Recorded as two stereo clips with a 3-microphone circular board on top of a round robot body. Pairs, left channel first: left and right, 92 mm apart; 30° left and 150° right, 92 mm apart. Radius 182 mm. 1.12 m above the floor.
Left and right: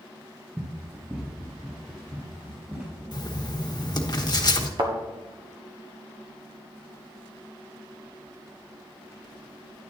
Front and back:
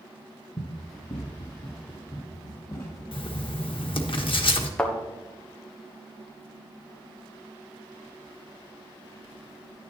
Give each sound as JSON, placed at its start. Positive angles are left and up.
{"t": 0.6, "sound": "running footsteps", "azimuth_deg": -5, "distance_m": 1.3}
{"t": 3.1, "sound": "writing", "azimuth_deg": 50, "distance_m": 1.4}
{"t": 4.8, "sound": "a thud", "azimuth_deg": -50, "distance_m": 1.4}